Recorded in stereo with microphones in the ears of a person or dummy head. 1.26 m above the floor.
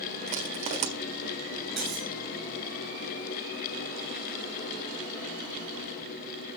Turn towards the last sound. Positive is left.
turn(degrees=0)  # may be behind; listen again after turning